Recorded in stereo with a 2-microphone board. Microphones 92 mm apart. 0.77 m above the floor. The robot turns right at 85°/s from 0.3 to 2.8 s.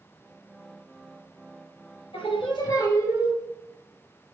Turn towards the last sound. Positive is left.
turn(degrees=145)